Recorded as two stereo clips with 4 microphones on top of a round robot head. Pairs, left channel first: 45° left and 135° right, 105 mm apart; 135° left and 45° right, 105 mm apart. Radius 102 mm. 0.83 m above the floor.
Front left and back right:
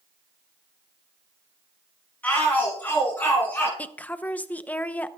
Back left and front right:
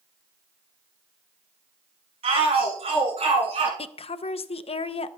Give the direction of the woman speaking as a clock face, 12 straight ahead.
8 o'clock.